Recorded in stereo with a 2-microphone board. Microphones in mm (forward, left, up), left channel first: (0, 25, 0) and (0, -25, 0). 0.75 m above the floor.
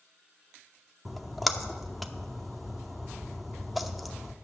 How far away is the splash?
About 0.7 m.